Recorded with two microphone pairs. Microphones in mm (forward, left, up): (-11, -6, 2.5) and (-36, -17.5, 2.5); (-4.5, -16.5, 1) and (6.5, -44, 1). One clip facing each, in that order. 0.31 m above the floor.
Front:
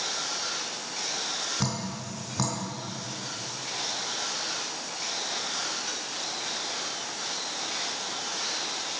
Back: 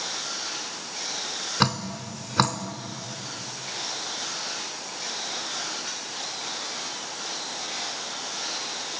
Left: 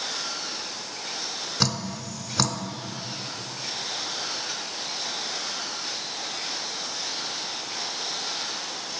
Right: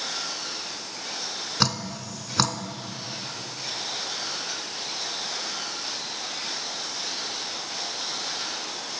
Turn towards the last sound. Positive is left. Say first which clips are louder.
# back 6 dB, right 1 dB
turn(degrees=-145)